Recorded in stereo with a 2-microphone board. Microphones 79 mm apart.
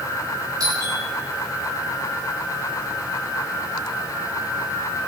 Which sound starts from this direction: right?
A doorbell, at 0.6 s.